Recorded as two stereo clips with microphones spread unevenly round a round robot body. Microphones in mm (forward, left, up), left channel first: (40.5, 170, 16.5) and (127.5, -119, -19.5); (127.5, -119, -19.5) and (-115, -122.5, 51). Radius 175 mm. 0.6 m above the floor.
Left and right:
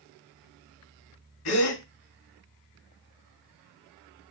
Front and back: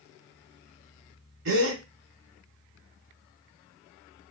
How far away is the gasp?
About 2 m.